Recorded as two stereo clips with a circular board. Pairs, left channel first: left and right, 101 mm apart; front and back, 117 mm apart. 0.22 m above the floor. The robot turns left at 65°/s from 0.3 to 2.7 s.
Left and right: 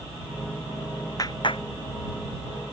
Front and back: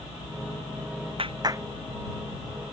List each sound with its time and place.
1.2 s a clap: 145° left; by 1.6 s 115° left